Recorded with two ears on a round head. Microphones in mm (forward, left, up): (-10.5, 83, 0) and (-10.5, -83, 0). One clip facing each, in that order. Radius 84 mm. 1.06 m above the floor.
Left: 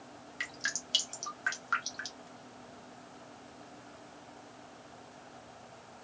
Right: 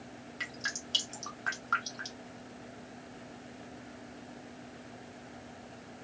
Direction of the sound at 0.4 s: 20° left (ahead or behind).